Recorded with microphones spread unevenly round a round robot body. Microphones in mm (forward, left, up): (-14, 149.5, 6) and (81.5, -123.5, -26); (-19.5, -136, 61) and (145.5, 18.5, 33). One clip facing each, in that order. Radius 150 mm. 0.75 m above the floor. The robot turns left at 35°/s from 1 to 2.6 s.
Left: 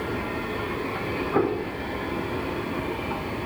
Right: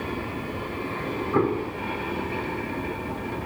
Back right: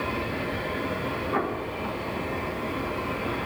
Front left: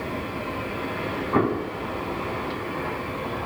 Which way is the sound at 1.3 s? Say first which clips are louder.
Right 1 dB, front left 9 dB; 10° left.